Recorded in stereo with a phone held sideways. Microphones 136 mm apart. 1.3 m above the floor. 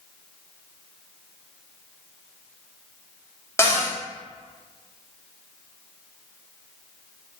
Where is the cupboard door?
20° left (ahead or behind), 1.0 m.